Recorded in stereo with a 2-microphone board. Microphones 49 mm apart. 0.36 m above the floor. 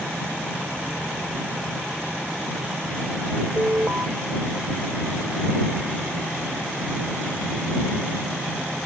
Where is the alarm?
35° right (ahead or behind).